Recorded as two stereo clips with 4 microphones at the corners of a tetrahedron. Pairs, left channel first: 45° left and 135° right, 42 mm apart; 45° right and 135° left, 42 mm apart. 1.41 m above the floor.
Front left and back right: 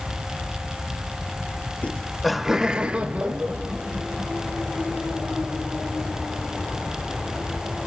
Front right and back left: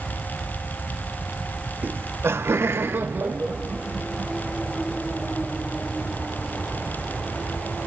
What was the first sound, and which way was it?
Laughter, 100° left.